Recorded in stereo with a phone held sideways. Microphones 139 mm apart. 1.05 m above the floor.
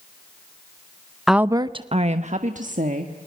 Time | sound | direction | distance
1.3 | a woman speaking | centre (ahead or behind) | 0.5 m